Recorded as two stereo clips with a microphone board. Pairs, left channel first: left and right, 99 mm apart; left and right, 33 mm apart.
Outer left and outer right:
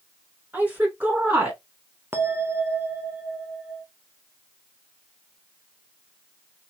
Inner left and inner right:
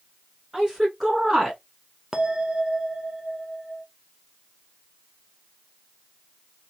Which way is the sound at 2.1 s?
25° right (ahead or behind).